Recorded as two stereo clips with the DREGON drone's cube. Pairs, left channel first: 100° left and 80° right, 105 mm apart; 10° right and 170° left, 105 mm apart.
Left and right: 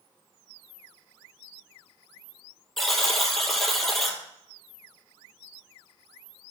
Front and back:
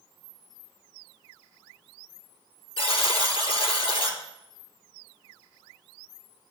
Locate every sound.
2.8 s a buzzer: 10° left, 1.2 m